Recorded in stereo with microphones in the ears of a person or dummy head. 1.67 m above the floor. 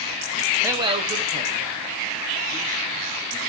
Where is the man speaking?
10° right (ahead or behind), 0.5 m; by 3.4 s 45° right (ahead or behind), 4.5 m.